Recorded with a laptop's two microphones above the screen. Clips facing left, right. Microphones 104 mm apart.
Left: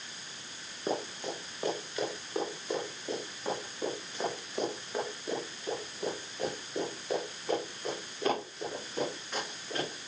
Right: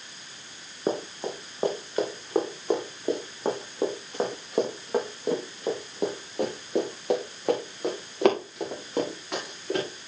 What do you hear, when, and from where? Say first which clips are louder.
0.9 s running footsteps: right 5 dB; 35° right (ahead or behind), 4 m; by 9.9 s 85° right, 8 m